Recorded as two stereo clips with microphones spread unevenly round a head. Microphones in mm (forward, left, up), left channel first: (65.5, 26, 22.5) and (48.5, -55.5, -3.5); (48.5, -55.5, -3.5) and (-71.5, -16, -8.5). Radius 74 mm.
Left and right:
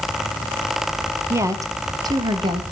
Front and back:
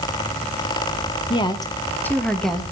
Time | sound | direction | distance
1.3 | a woman speaking | 65° right | 1.4 m